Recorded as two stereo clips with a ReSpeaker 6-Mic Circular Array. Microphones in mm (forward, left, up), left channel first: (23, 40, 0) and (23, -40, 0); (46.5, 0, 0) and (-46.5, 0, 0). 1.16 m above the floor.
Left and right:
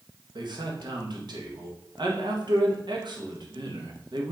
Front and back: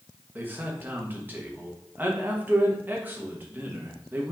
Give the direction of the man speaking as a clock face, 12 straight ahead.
4 o'clock.